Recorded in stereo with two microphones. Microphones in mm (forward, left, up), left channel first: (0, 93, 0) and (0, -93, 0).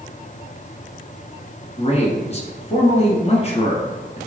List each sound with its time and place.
1.8 s a man speaking: 35° left (ahead or behind), 1.5 m